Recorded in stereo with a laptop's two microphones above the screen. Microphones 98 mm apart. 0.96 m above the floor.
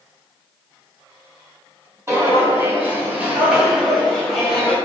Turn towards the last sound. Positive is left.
turn(degrees=10)  # may be behind; listen again after turning